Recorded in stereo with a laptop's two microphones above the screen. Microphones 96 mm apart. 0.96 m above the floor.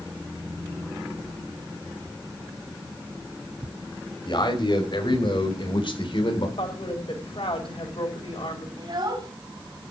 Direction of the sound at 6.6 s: 75° left (ahead or behind).